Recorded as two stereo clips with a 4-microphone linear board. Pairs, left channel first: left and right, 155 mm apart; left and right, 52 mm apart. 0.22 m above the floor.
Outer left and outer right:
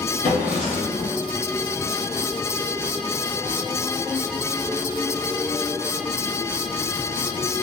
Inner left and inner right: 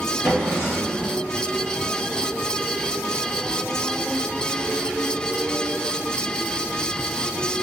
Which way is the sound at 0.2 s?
40° left (ahead or behind).